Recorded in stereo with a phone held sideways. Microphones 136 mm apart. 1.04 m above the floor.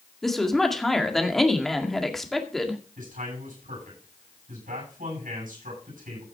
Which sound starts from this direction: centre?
A woman speaking, at 0.2 s.